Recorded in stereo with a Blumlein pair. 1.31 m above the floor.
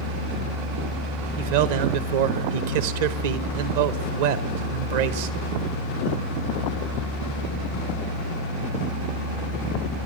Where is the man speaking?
50° right, 1.2 m.